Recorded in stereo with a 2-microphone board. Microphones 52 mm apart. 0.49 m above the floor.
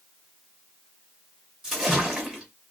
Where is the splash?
10° right (ahead or behind), 1.3 m.